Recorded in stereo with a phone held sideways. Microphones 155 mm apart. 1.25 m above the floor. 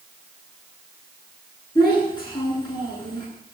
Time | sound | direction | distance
1.8 | a child speaking | 30° left (ahead or behind) | 9 m